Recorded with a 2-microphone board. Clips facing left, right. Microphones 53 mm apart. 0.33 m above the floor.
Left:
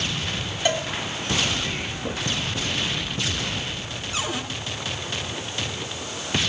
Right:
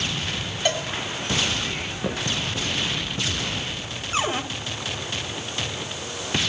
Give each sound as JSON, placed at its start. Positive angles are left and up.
{"t": 0.7, "sound": "a cowbell", "side_deg": 0, "distance_m": 2.0}
{"t": 2.0, "sound": "footsteps", "side_deg": -80, "distance_m": 6.5}
{"t": 4.1, "sound": "a cupboard door", "side_deg": -35, "distance_m": 1.6}